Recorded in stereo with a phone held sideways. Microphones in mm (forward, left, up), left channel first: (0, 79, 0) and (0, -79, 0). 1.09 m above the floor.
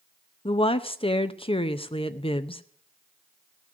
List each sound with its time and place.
0.5 s a woman speaking: 35° left (ahead or behind), 0.8 m